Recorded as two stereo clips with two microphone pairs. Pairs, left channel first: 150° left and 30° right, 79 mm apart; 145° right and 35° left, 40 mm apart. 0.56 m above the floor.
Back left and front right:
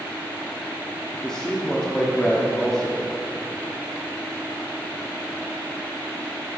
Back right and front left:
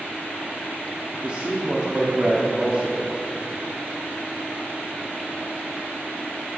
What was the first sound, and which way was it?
A man speaking, 75° left.